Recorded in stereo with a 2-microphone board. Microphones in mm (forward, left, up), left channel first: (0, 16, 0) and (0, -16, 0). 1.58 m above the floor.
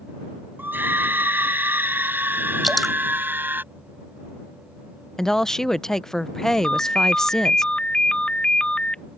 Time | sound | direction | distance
0.6 | a scream | 85° right | ?
2.6 | dripping | 5° left (ahead or behind) | ?
5.2 | a woman speaking | 15° left (ahead or behind) | ?
6.6 | a ringtone | 30° left (ahead or behind) | ?